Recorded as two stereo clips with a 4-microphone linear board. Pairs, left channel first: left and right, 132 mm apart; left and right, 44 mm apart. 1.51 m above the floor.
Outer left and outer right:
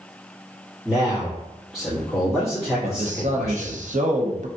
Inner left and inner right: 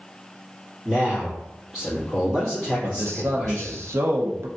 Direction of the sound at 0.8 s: 5° right (ahead or behind).